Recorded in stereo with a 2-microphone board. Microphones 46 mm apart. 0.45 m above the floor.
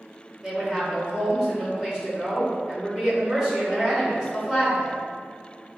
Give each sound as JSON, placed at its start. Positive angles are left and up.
{"t": 0.4, "sound": "a woman speaking", "side_deg": -10, "distance_m": 1.7}